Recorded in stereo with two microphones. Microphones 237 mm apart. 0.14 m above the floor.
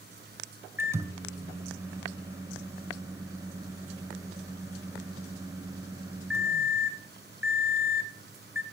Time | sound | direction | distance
0.8 | a microwave | 10° right (ahead or behind) | 1.2 m